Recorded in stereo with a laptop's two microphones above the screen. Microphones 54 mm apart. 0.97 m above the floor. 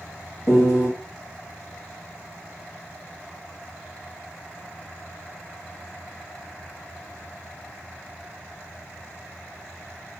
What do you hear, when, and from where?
0.5 s a piano: 55° left (ahead or behind), 1.4 m